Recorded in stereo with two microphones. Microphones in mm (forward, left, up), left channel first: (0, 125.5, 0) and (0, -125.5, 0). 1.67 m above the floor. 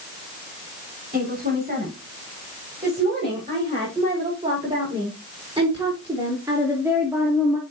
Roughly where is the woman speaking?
Right.